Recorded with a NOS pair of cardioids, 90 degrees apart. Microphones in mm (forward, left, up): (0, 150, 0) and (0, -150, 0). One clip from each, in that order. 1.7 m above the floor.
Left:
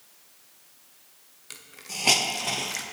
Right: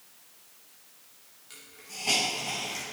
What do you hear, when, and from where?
1.5 s a hiss: 60° left, 0.9 m